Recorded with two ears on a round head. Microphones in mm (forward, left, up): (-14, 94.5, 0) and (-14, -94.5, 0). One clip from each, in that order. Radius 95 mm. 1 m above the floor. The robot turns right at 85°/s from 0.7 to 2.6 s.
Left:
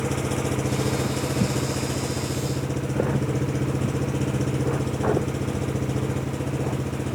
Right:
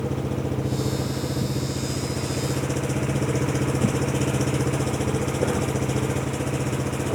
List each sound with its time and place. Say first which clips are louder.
0.0 s an engine running: left 2 dB; 50° left; by 7.2 s 150° right